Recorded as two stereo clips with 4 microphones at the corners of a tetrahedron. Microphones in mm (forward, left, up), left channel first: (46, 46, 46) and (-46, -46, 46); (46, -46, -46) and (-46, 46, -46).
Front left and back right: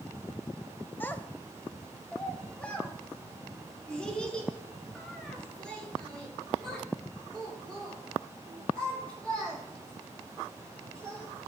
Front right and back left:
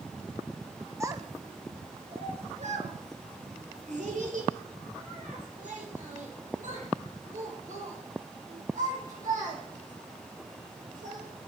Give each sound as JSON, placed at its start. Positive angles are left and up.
{"t": 1.0, "sound": "a child speaking", "azimuth_deg": 105, "distance_m": 0.7}